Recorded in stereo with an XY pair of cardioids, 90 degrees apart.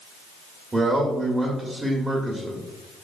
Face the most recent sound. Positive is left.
turn(degrees=-20)